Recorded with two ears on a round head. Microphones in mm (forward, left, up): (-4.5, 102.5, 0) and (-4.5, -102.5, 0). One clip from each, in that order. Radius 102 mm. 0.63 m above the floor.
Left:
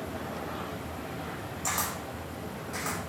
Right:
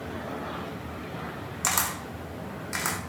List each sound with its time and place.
1.6 s a camera shutter: 80° right, 0.8 m